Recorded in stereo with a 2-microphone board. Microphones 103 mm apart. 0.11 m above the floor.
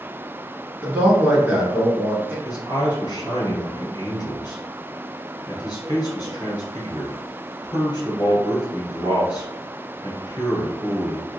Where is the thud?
I don't hear a thud.